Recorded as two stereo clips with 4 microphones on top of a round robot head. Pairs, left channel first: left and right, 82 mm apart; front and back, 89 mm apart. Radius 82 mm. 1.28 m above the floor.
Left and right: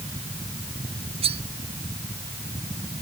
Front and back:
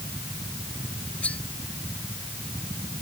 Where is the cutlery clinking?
80° right.